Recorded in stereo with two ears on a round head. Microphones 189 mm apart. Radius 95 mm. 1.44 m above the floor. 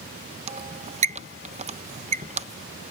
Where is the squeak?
30° right (ahead or behind).